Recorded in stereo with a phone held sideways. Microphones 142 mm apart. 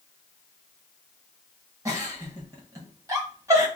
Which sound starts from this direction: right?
A giggle, at 1.9 s.